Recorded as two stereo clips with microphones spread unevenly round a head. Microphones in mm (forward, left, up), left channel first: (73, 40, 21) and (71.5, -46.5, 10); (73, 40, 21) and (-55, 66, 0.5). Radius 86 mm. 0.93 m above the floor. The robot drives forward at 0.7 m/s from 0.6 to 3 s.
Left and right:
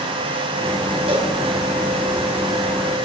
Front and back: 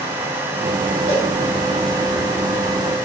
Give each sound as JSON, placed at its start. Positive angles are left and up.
{"t": 1.1, "sound": "a cowbell", "azimuth_deg": -75, "distance_m": 3.5}